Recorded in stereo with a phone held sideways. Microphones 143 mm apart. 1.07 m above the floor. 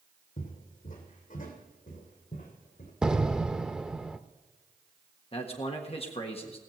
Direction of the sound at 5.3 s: 45° left (ahead or behind).